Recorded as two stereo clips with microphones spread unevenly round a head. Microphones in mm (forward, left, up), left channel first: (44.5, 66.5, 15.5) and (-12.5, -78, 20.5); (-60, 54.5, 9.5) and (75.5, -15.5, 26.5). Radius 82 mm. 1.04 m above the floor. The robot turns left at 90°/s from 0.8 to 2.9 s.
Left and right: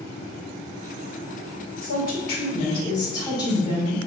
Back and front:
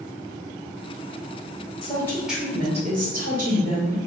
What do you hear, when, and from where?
1.8 s a woman speaking: 105° left, 1.6 m; by 4.0 s 5° left, 1.6 m